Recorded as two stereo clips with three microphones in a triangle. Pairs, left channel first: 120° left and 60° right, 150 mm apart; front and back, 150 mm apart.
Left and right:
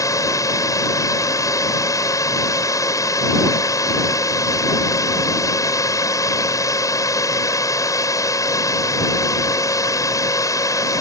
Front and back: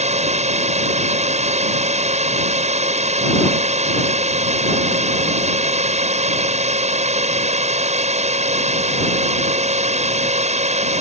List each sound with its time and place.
0.0 s a drone: straight behind